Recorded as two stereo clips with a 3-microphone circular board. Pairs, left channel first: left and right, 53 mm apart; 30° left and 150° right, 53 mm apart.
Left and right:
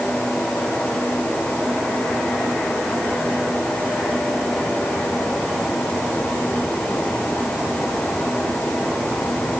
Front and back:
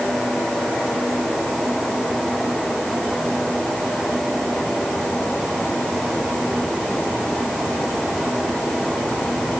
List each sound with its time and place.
Only background noise.